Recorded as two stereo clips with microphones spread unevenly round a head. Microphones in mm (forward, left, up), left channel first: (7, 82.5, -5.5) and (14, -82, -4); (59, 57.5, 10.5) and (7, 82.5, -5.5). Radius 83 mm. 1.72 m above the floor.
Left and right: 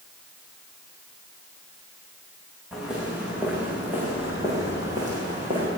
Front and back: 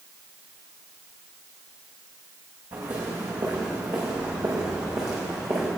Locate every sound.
2.7 s footsteps: 175° right, 8.5 m; by 5.7 s 150° right, 7.5 m